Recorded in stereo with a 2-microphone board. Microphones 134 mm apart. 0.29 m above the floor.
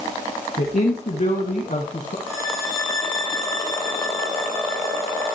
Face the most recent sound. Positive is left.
turn(degrees=25)  # may be behind; listen again after turning